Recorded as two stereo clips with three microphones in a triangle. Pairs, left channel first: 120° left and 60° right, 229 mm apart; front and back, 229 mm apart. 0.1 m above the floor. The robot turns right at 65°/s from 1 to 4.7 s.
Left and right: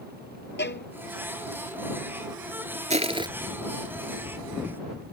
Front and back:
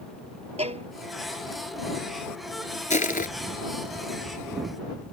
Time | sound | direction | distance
0.6 | a violin | 125° left | ?
2.9 | crushing | 25° right | ?